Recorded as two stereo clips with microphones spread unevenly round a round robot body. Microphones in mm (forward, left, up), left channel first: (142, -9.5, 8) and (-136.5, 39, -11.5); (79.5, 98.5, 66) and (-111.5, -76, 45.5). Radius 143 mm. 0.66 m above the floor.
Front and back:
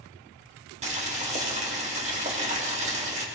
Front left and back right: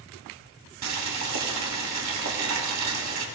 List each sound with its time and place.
0.8 s boiling: 125° right, 2.5 m